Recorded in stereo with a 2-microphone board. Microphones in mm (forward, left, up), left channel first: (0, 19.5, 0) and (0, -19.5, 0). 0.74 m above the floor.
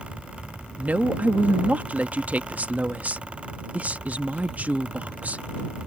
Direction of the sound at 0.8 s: 40° right (ahead or behind).